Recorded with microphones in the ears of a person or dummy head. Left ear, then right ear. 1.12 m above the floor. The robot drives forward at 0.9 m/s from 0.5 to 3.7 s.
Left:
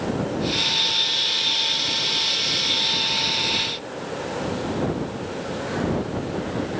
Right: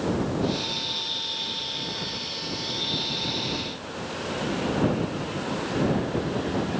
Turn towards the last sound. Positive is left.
No sound to turn to.